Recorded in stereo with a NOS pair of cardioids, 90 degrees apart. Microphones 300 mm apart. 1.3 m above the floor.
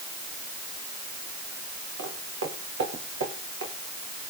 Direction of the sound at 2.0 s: 50° right.